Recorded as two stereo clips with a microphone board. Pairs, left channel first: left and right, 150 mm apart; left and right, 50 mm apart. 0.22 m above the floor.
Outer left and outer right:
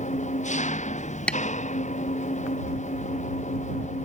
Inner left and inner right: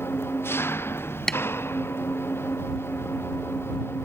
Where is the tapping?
5° left (ahead or behind).